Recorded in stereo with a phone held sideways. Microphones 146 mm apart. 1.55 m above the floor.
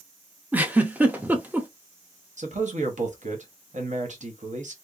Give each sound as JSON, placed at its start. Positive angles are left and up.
{"t": 0.5, "sound": "a giggle", "side_deg": -10, "distance_m": 0.5}
{"t": 2.4, "sound": "a man speaking", "side_deg": -55, "distance_m": 0.9}